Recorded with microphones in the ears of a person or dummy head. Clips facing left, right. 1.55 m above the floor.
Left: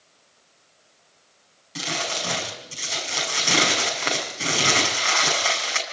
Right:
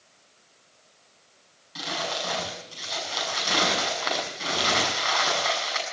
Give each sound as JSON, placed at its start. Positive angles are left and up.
{"t": 1.8, "sound": "crumpling", "side_deg": 40, "distance_m": 6.5}